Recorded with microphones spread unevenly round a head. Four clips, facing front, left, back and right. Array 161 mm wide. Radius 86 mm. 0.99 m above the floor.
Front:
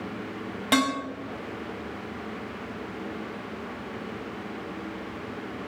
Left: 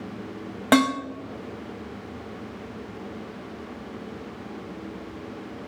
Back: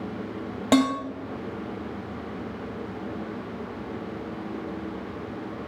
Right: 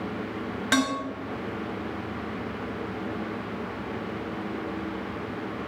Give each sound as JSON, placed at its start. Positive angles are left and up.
{"t": 0.7, "sound": "dishes clattering", "azimuth_deg": 125, "distance_m": 1.0}